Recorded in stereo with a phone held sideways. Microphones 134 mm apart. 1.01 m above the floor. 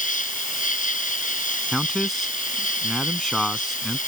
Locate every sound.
0.0 s an insect: 75° left (ahead or behind)
1.7 s a man speaking: centre (ahead or behind)